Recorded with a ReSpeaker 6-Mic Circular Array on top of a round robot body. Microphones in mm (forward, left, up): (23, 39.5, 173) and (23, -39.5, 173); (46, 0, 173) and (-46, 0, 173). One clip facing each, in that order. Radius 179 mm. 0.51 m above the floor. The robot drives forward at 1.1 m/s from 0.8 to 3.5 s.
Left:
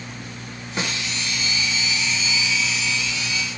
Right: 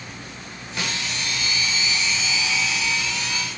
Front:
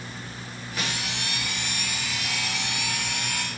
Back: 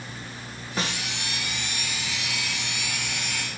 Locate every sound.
0.8 s a snare drum: 140° left, 1.3 m; by 1.0 s 150° left, 1.4 m